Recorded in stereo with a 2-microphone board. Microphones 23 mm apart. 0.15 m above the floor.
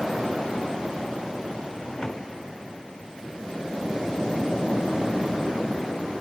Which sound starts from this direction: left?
A drawer, at 1.7 s.